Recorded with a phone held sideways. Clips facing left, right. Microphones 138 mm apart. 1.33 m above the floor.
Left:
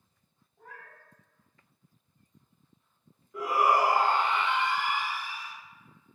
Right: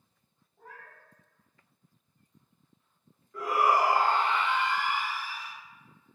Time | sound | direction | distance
0.6 | a cat meowing | centre (ahead or behind) | 1.0 m
3.3 | a shout | 10° left (ahead or behind) | 0.6 m